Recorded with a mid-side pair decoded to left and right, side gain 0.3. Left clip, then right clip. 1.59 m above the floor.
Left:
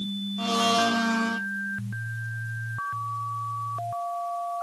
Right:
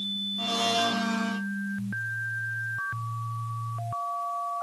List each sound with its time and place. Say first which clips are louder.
0.4 s a blender: left 4 dB; 40° left, 1.7 m